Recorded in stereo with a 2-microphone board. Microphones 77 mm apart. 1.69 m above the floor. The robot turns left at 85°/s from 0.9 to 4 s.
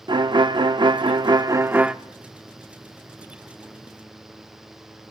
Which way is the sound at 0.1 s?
80° right.